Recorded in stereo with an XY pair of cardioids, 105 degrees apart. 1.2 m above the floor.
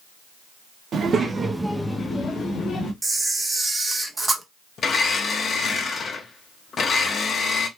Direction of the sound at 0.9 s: 55° right.